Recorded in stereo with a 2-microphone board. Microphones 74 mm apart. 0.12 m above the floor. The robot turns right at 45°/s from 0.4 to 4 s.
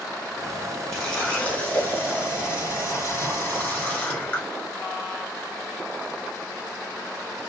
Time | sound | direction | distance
0.9 | a running tap | 10° left | 1.2 m